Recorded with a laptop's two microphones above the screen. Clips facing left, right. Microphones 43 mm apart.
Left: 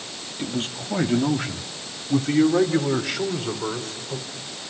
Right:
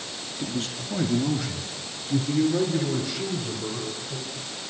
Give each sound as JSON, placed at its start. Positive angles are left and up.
{"t": 0.4, "sound": "a man speaking", "side_deg": 35, "distance_m": 1.8}